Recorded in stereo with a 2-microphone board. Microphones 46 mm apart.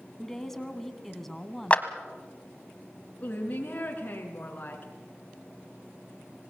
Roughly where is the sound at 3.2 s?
Left.